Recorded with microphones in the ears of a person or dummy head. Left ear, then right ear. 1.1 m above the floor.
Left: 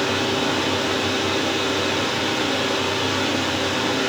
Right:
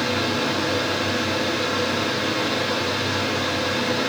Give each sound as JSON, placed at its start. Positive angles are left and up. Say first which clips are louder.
{"t": 0.0, "sound": "a fan", "louder": "left 1 dB", "side_deg": 40, "distance_m": 0.8}